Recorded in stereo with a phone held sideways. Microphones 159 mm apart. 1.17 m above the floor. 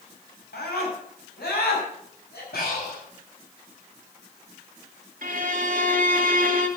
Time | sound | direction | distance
0.5 | a scream | 85° left | 6.5 m
2.5 | breathing | 80° left | 8 m
5.2 | a violin | 60° right (ahead or behind) | 1.7 m